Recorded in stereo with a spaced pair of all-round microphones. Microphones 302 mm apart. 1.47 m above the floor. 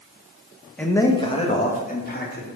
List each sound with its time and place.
0.8 s a man speaking: 5° left (ahead or behind), 1.5 m; by 2.5 s 35° left (ahead or behind), 3 m